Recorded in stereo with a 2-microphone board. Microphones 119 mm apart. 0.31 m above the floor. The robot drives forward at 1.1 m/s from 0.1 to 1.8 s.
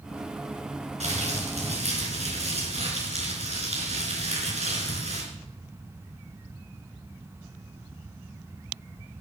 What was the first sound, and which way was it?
Crumpling, 70° right (ahead or behind).